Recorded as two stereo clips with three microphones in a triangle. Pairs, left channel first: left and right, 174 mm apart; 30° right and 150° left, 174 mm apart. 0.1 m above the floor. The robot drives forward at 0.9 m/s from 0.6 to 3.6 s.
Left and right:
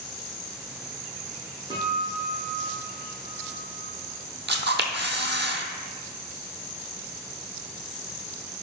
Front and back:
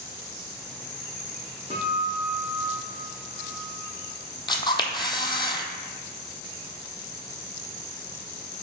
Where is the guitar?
155° right, 1.7 m; by 3.9 s 165° right, 3.5 m.